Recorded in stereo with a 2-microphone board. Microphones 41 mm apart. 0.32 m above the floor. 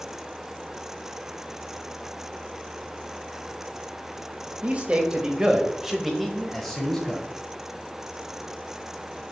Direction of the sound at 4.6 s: 35° right (ahead or behind).